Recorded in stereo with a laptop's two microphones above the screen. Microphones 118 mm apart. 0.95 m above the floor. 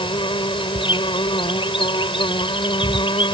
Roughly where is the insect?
Left.